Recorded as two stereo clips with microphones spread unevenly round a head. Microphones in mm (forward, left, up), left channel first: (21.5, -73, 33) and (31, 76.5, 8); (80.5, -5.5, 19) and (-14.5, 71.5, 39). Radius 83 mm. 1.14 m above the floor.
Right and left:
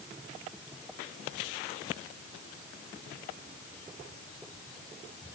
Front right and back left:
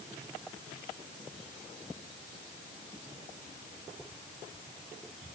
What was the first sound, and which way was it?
Only background noise.